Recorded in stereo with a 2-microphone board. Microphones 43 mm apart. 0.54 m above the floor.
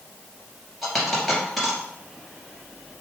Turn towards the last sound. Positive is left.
turn(degrees=5)  # may be behind; listen again after turning